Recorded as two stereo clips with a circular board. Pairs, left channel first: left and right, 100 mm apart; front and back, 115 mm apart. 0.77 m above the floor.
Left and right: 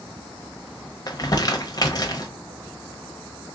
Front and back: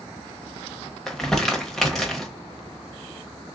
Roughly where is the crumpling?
Left.